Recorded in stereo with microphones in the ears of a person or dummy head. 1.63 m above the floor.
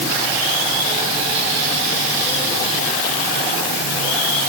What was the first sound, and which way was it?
Only background noise.